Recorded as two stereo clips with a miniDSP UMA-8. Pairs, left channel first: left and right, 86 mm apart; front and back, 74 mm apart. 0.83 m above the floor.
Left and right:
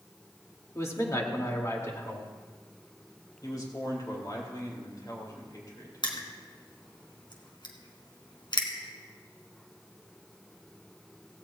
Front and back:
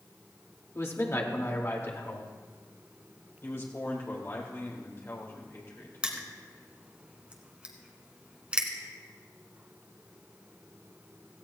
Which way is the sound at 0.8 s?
45° left.